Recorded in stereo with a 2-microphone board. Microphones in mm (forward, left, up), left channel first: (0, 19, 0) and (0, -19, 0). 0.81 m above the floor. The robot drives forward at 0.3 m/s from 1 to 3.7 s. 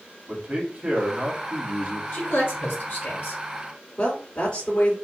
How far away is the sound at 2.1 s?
About 3 m.